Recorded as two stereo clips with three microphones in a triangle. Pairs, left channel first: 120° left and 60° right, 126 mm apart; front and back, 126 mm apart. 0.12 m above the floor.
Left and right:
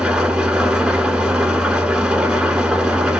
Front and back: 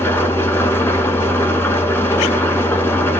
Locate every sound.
0.0 s an engine running: 10° left, 0.7 m